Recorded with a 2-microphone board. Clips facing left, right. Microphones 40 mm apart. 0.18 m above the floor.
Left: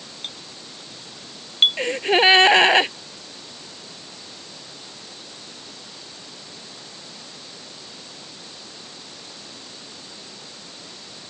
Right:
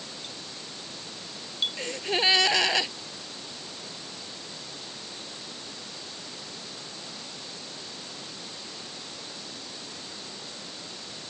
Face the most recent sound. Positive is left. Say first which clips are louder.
# left 9 dB
turn(degrees=40)  # may be behind; listen again after turning